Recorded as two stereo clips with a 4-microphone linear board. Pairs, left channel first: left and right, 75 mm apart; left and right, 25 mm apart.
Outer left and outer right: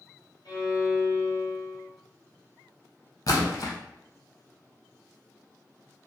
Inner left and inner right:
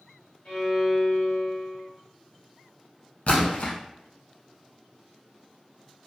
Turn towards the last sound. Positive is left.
turn(degrees=55)  # may be behind; listen again after turning